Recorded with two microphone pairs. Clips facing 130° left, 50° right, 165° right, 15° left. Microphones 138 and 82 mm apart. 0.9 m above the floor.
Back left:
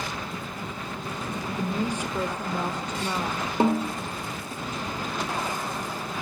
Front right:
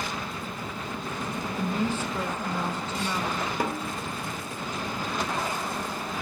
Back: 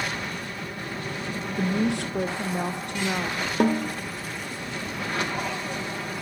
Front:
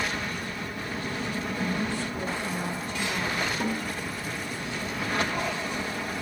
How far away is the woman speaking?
About 1.2 m.